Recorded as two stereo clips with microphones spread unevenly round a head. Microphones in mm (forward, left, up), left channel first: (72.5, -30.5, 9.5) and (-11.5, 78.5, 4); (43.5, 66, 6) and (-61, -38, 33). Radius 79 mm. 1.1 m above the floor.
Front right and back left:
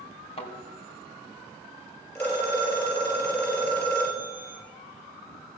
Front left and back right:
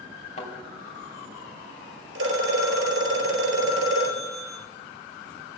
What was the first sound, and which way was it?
A thud, 5° right.